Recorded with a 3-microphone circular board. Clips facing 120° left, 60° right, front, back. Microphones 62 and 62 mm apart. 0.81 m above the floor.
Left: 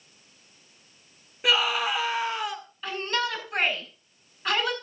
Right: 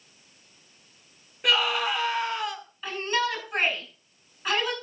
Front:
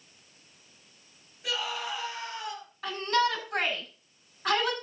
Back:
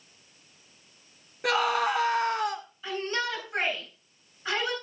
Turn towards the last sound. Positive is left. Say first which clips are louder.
# right 2 dB, front 4 dB
turn(degrees=25)